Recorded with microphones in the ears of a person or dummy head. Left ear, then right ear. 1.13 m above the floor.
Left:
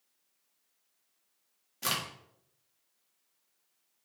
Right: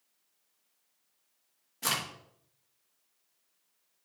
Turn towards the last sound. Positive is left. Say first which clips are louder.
# right 1 dB
turn(degrees=5)  # may be behind; listen again after turning